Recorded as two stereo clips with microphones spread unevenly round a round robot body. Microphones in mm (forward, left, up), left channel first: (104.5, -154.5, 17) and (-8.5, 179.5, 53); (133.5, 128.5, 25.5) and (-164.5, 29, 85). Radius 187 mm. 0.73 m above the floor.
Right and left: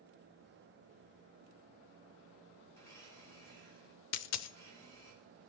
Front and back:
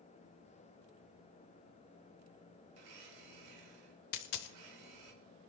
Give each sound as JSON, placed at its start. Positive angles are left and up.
{"t": 2.7, "sound": "a blender", "azimuth_deg": -155, "distance_m": 3.5}
{"t": 4.1, "sound": "a dropped coin", "azimuth_deg": -25, "distance_m": 0.6}